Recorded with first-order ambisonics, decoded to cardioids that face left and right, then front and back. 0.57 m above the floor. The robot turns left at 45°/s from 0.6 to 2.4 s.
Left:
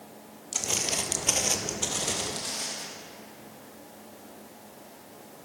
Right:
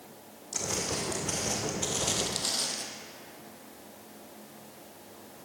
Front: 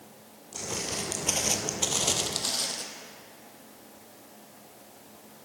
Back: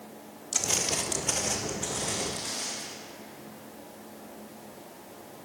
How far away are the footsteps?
About 0.8 m.